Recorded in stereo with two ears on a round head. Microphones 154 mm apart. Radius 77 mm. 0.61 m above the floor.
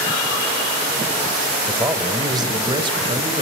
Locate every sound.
1.7 s a man speaking: 15° right (ahead or behind), 3 m; by 3.4 s 30° right (ahead or behind), 4 m